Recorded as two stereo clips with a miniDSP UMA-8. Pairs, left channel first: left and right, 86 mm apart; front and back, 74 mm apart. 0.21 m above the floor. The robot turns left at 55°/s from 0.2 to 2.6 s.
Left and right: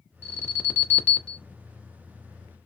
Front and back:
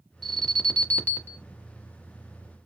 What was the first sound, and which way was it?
An alarm, 80° left.